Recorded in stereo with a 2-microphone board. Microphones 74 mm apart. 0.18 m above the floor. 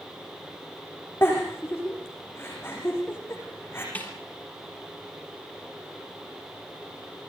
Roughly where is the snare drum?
Left.